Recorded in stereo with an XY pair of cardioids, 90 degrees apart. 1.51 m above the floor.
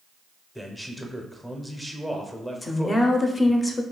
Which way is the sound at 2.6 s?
25° left.